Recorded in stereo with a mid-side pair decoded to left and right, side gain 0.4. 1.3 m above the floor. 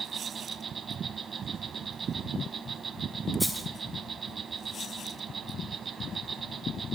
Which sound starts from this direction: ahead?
A dropped coin, at 3.4 s.